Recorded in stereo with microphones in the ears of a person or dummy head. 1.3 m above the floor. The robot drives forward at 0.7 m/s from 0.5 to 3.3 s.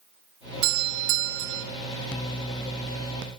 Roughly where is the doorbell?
Right.